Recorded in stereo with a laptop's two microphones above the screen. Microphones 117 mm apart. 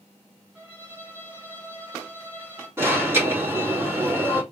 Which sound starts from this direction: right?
An alarm, at 2.8 s.